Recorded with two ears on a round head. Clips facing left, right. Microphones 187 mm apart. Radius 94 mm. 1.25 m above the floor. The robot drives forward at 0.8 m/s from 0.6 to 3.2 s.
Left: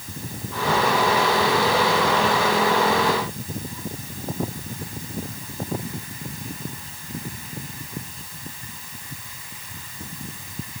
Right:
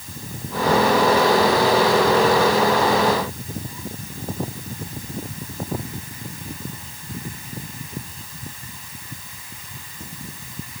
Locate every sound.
Only background noise.